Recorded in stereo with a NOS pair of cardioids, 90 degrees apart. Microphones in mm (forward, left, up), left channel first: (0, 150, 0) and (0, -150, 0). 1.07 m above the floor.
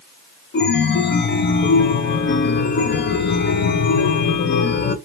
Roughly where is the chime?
Ahead left.